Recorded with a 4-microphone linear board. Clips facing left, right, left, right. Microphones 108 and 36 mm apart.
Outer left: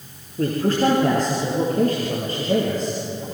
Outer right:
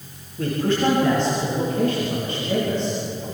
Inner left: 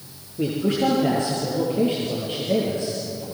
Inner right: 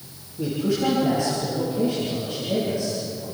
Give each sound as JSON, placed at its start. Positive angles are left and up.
{"t": 0.4, "sound": "a man speaking", "side_deg": 40, "distance_m": 6.5}